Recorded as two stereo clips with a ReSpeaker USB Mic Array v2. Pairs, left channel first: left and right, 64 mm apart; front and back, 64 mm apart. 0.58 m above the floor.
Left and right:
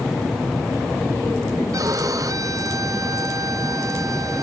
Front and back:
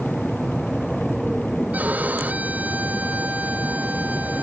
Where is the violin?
115° right.